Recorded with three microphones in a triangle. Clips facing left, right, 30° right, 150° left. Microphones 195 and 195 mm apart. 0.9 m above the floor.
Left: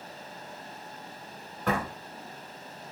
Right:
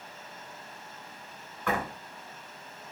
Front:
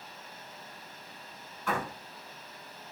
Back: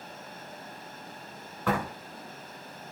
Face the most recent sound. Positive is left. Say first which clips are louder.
# left 2 dB, back 4 dB
turn(degrees=140)